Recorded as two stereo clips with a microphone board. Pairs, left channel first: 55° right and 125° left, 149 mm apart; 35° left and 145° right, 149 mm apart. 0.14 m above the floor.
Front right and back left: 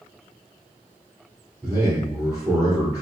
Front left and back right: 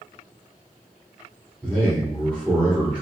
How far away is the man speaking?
About 1.7 m.